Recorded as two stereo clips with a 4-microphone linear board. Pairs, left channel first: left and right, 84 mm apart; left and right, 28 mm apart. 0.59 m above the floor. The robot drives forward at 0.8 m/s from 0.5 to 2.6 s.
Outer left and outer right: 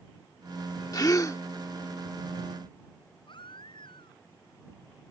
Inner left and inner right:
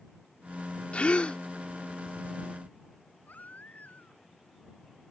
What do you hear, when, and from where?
0.9 s a gasp: 45° left (ahead or behind); by 1.4 s 40° left (ahead or behind)
3.3 s a baby crying: 75° left (ahead or behind)